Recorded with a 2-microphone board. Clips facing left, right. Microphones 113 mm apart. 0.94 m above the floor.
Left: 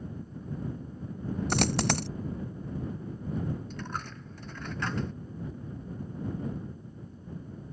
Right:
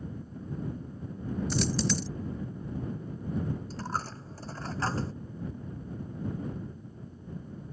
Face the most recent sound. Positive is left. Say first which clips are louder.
# right 3 dB
turn(degrees=-35)  # may be behind; listen again after turning